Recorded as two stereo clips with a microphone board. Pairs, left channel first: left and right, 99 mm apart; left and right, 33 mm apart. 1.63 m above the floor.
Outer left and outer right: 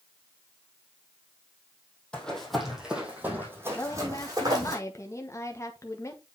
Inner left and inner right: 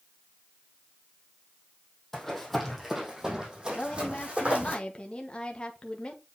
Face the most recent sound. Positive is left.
turn(degrees=30)  # may be behind; listen again after turning